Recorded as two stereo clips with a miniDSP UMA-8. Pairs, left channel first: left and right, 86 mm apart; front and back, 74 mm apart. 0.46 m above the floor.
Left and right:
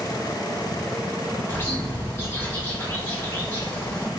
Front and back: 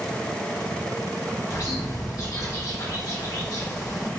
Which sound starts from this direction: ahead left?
A bird, at 1.5 s.